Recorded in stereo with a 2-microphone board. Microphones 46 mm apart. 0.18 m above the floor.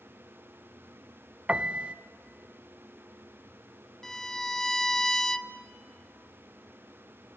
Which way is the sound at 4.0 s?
10° left (ahead or behind).